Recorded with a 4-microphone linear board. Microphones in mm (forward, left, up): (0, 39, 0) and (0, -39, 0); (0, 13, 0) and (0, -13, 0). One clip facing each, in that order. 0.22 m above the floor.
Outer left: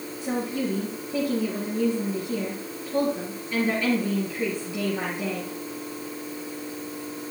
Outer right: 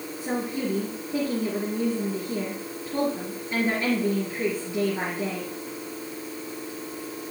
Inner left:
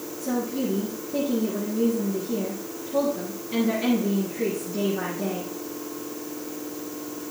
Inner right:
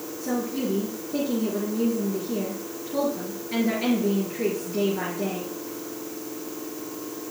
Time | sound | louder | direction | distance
0.2 | a woman speaking | outer left 1 dB, inner left 1 dB | 30° right (ahead or behind) | 4 m